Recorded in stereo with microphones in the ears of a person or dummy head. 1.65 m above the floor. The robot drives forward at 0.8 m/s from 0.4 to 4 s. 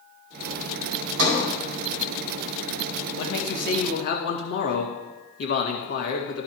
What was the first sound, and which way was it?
A sliding door, 70° right (ahead or behind).